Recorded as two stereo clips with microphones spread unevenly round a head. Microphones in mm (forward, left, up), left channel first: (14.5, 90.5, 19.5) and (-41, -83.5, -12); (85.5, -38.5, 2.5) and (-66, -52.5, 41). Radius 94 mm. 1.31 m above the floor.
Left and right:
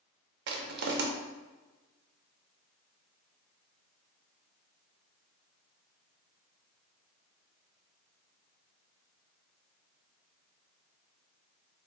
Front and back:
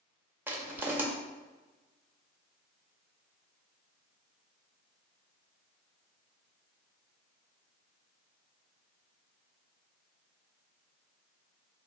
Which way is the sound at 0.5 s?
120° right.